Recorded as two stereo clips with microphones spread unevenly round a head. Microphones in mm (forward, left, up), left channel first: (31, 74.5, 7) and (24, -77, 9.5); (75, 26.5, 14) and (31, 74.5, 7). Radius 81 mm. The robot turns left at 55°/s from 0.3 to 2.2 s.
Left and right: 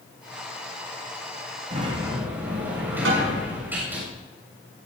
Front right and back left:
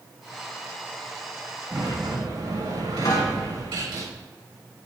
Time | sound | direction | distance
1.7 | a sliding door | 145° right | 7.5 m
3.0 | a snare drum | 100° right | 5.5 m